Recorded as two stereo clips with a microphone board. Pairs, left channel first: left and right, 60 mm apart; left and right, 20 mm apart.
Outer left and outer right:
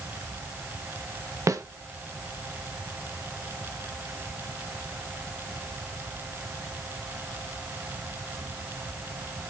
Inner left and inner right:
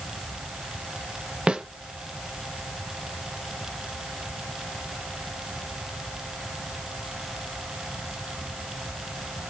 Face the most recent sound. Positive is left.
turn(degrees=-65)  # may be behind; listen again after turning